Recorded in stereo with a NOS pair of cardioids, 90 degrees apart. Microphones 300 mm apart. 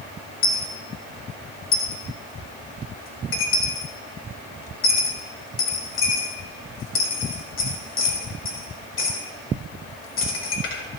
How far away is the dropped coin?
About 1.9 m.